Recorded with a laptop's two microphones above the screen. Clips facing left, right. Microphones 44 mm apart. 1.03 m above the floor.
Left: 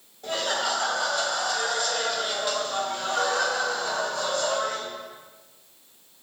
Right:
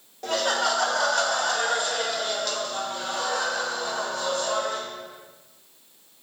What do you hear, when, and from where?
0.2 s laughter: 80° right, 1.1 m; by 4.8 s 60° left (ahead or behind), 1.7 m